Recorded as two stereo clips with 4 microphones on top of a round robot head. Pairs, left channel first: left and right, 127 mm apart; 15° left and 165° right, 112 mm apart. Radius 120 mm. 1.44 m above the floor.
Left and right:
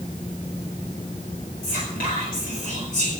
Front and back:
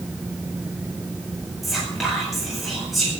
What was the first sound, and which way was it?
Whispering, 105° left.